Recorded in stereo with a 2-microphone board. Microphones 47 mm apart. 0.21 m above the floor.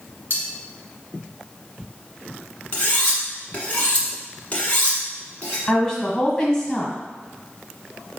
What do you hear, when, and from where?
0.3 s cutlery clinking: 50° left (ahead or behind), 1.5 m
2.7 s cutlery clinking: 30° left (ahead or behind), 1.3 m
5.7 s a woman speaking: 10° left (ahead or behind), 1.3 m